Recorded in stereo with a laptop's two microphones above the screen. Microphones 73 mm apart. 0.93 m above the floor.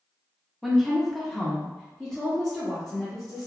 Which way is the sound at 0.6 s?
Centre (ahead or behind).